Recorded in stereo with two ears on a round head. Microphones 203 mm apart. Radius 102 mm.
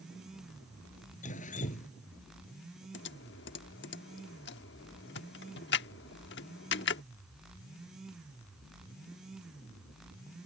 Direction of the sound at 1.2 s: 30° left (ahead or behind).